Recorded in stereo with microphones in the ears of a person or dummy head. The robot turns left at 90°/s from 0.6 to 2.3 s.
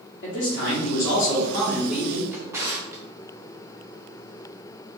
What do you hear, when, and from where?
0.2 s a man speaking: 110° left, 0.9 m; by 2.2 s 35° right, 0.9 m
2.3 s a drawer: 15° right (ahead or behind), 0.7 m